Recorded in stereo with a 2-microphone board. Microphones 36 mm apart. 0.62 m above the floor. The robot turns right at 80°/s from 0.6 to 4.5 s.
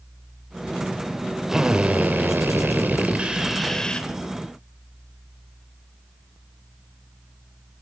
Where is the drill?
165° right, 3 m; by 4.1 s 40° left, 3 m.